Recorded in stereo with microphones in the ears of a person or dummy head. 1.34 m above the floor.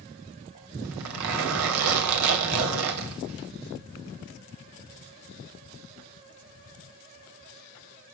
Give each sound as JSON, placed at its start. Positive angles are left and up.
{"t": 0.8, "sound": "a zipper", "side_deg": -80, "distance_m": 2.5}